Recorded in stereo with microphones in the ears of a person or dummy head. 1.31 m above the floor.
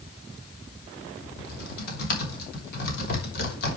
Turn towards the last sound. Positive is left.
turn(degrees=55)  # may be behind; listen again after turning